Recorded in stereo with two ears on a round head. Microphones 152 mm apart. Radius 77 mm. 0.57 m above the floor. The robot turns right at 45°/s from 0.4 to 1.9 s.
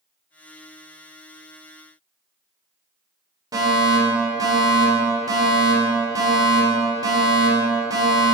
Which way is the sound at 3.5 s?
20° right (ahead or behind).